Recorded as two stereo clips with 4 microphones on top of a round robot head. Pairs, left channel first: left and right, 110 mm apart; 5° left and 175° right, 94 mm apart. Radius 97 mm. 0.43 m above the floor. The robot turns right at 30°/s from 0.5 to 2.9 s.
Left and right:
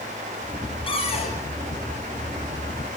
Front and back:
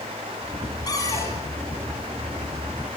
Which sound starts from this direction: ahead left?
A cupboard door, at 0.9 s.